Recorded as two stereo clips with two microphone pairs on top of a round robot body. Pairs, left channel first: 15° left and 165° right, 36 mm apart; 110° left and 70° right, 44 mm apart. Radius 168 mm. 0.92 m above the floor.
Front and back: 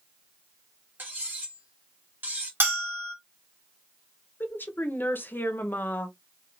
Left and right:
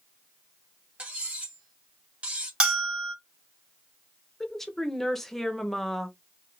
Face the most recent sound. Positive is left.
turn(degrees=20)